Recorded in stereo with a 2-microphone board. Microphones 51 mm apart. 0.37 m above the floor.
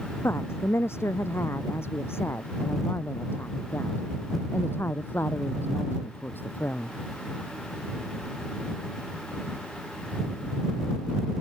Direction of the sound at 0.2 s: 60° left (ahead or behind).